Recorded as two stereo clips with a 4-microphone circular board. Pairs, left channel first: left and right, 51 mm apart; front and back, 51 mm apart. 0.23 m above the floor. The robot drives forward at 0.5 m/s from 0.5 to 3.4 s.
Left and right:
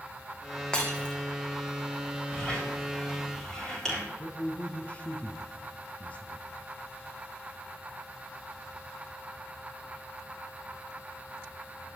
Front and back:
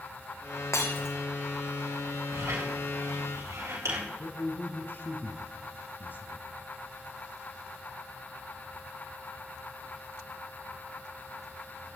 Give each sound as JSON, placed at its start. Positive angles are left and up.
{"t": 0.7, "sound": "breaking glass", "azimuth_deg": 15, "distance_m": 4.0}
{"t": 2.3, "sound": "a squeak", "azimuth_deg": 170, "distance_m": 7.0}
{"t": 4.2, "sound": "a man speaking", "azimuth_deg": 30, "distance_m": 2.5}